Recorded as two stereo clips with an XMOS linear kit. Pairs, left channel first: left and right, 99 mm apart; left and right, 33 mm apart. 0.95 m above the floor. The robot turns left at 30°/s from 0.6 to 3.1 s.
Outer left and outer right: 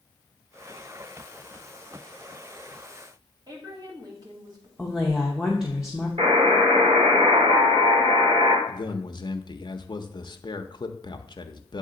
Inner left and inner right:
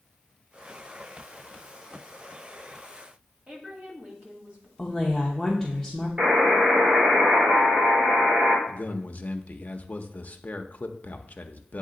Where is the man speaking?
50° left (ahead or behind), 0.6 m.